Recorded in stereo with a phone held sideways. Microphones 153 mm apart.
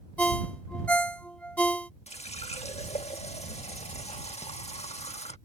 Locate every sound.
0.2 s a ringtone: 10° left (ahead or behind)
2.1 s a running tap: 40° left (ahead or behind)